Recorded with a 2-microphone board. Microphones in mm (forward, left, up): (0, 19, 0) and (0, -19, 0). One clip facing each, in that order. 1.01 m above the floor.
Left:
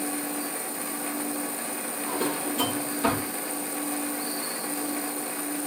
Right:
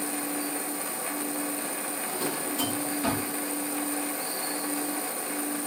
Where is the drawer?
45° left (ahead or behind), 1.1 m.